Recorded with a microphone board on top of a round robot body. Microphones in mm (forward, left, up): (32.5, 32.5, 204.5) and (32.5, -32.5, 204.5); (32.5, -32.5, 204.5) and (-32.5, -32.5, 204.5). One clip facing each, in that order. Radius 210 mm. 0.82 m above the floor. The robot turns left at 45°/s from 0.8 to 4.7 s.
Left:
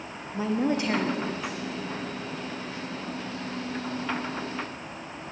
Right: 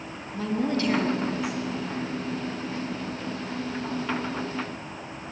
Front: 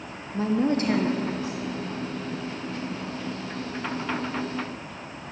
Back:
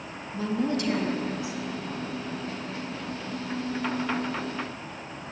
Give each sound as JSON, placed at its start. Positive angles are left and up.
{"t": 0.3, "sound": "a woman speaking", "azimuth_deg": 30, "distance_m": 0.8}